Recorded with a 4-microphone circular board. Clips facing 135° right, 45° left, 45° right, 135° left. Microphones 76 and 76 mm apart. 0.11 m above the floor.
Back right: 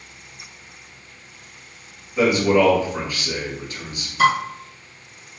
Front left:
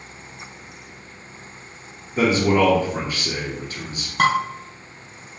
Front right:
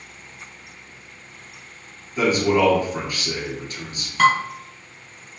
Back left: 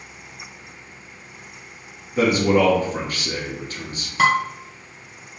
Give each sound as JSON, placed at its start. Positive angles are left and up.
{"t": 2.2, "sound": "a man speaking", "azimuth_deg": 95, "distance_m": 1.6}
{"t": 4.2, "sound": "dishes clattering", "azimuth_deg": 60, "distance_m": 1.8}